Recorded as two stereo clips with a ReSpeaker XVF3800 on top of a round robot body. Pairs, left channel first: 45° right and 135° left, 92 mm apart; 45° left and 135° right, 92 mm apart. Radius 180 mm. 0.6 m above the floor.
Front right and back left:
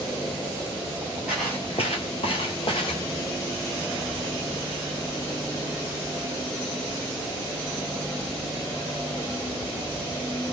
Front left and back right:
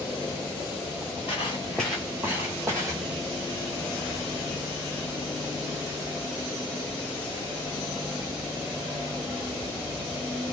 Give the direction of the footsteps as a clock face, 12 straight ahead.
10 o'clock.